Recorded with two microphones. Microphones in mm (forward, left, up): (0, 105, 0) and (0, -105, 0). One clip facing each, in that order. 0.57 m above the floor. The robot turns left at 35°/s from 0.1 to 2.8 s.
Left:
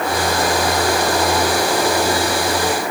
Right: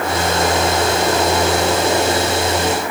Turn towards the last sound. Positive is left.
No sound to turn to.